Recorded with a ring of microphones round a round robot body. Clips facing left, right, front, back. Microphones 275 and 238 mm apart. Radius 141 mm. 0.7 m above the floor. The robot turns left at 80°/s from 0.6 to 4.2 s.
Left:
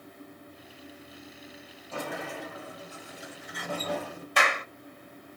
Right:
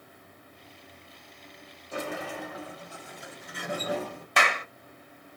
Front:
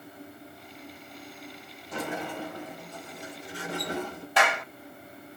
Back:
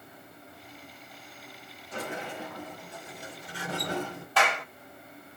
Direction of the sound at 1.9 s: 15° right.